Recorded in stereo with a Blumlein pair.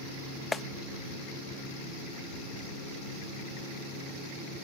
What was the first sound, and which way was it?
A clap, 10° left.